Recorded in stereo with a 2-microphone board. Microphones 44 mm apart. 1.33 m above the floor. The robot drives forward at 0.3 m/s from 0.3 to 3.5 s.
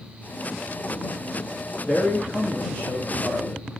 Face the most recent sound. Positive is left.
turn(degrees=30)  # may be behind; listen again after turning